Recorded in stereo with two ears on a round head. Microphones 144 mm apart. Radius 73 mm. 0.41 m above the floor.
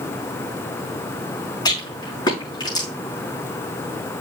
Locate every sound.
1.6 s a rattle: 25° left (ahead or behind), 5 m